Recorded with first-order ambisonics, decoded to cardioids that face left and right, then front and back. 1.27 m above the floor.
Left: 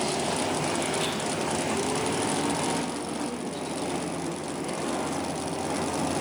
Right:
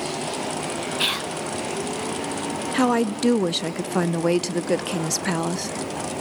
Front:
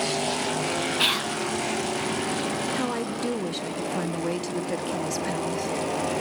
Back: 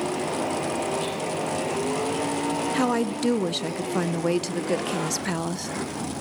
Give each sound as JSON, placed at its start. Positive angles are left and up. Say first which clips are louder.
{"t": 1.0, "sound": "whispering", "louder": "right 5 dB, front 5 dB", "azimuth_deg": -40, "distance_m": 0.5}
{"t": 2.7, "sound": "a woman speaking", "louder": "right 9 dB, back 4 dB", "azimuth_deg": -110, "distance_m": 0.6}